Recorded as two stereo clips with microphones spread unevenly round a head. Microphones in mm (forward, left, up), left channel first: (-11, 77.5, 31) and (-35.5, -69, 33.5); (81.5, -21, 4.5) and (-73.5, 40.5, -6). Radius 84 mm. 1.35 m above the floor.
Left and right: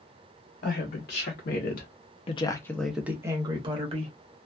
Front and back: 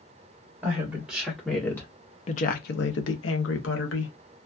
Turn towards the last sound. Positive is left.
turn(degrees=-45)